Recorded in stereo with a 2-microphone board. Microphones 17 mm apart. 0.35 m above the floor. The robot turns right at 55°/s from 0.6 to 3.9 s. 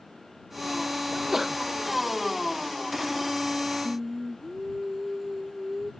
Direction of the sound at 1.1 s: 40° right (ahead or behind).